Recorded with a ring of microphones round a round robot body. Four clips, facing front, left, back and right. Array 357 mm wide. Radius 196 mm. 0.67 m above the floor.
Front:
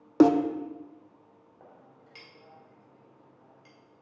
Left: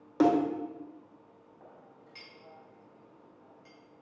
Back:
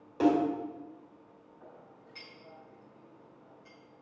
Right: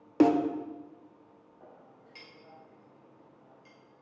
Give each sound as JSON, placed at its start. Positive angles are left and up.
{"t": 0.2, "sound": "a snare drum", "azimuth_deg": -15, "distance_m": 0.6}
{"t": 1.6, "sound": "a clink", "azimuth_deg": 0, "distance_m": 3.0}